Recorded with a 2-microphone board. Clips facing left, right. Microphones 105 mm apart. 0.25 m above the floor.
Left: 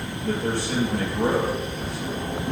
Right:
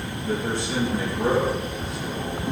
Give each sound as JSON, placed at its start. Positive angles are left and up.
{"t": 0.2, "sound": "a man speaking", "side_deg": 60, "distance_m": 5.5}